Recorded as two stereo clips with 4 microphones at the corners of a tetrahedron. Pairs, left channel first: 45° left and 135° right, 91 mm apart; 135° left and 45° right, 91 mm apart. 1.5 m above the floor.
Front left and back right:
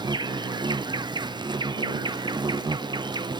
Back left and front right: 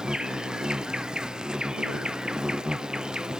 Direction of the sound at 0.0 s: 125° right.